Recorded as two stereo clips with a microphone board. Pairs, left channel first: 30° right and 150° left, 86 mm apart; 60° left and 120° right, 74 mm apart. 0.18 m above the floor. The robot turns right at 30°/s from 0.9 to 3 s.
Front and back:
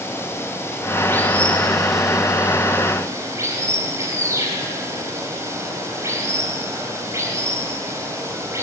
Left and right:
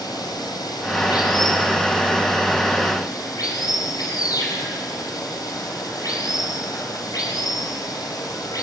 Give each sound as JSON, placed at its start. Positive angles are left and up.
{"t": 0.0, "sound": "running water", "azimuth_deg": 35, "distance_m": 5.0}